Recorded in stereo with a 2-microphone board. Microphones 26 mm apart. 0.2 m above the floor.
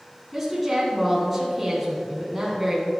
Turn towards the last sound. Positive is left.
turn(degrees=-5)  # may be behind; listen again after turning